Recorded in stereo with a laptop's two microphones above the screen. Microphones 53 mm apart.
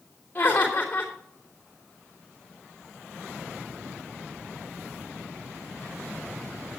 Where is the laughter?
30° left (ahead or behind), 3 m.